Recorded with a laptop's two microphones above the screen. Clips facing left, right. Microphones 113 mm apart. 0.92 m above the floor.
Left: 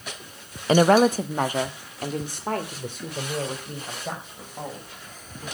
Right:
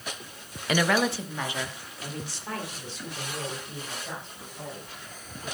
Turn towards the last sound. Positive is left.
turn(degrees=50)  # may be behind; listen again after turning